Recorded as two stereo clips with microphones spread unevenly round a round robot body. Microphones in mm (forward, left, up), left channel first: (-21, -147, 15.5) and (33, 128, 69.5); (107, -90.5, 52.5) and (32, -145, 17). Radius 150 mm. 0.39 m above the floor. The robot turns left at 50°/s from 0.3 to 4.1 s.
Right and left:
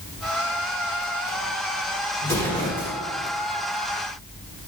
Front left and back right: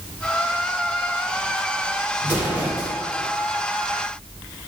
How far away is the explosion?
About 1.1 m.